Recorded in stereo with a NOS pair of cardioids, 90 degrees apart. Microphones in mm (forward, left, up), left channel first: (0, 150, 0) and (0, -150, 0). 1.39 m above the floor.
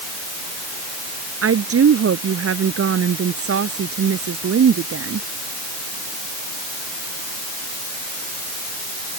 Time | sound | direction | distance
1.4 | a woman speaking | 50° right | ?